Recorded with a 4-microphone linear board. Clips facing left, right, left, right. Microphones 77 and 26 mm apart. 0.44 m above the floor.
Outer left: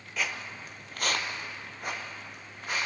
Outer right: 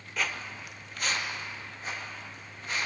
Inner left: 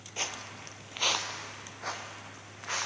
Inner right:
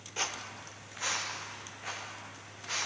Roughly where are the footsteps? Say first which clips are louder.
Outer right 1 dB, even; centre.